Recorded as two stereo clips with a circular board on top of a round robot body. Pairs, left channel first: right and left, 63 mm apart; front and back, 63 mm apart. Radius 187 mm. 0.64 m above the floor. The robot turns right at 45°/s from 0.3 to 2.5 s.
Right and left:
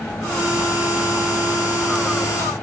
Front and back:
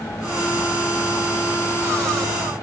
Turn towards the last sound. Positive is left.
No sound to turn to.